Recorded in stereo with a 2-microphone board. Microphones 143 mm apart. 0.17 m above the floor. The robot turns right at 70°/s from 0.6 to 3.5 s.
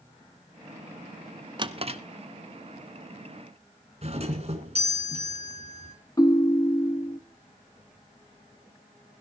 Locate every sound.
1.6 s a drawer: 35° right (ahead or behind), 0.8 m; by 2.0 s 50° right (ahead or behind), 0.8 m
4.0 s a doorbell: 50° right (ahead or behind), 2 m
6.2 s a ringtone: 25° left (ahead or behind), 0.9 m